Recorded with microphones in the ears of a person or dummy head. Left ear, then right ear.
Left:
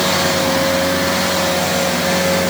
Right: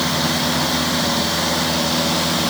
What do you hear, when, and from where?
Only background noise.